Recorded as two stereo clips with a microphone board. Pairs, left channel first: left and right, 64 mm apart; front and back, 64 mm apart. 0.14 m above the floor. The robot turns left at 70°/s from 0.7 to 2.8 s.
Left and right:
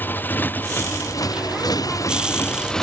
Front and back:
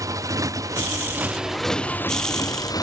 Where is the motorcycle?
150° left; by 2.8 s 10° left.